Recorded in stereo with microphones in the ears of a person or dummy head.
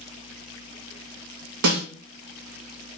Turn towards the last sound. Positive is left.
turn(degrees=-70)  # may be behind; listen again after turning